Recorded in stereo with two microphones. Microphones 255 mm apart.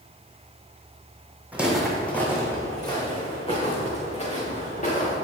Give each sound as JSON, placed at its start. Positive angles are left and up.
{"t": 1.5, "sound": "footsteps", "side_deg": -5, "distance_m": 1.9}